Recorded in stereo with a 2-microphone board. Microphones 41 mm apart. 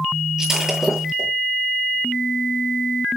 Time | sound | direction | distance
0.4 | breaking glass | 10° right (ahead or behind) | 8.5 m